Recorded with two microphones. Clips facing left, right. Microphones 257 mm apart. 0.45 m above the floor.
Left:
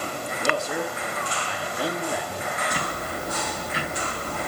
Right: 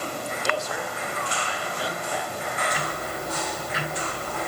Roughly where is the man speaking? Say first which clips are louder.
Left 5 dB; left.